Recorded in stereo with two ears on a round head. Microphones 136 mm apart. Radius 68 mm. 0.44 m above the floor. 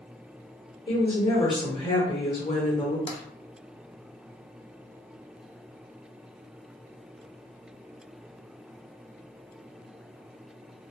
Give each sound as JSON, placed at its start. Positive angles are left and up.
{"t": 0.9, "sound": "a woman speaking", "side_deg": 35, "distance_m": 1.3}
{"t": 3.1, "sound": "tapping", "side_deg": 40, "distance_m": 0.5}